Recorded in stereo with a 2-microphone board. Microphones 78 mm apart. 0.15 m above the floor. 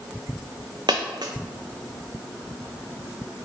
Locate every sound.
0.9 s a dropped coin: 65° right (ahead or behind), 0.6 m